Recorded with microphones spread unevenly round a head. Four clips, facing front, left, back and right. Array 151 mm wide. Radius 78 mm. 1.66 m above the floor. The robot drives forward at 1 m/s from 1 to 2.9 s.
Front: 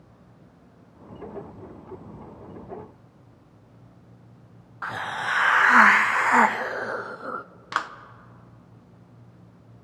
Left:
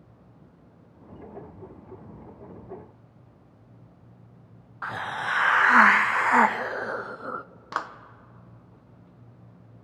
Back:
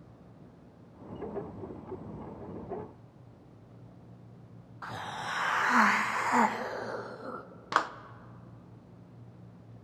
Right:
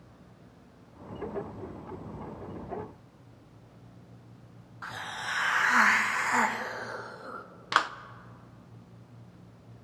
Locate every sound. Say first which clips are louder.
4.8 s a hiss: left 7 dB, front 8 dB; 30° left, 0.7 m
7.7 s a clap: right 4 dB, even; 175° right, 0.6 m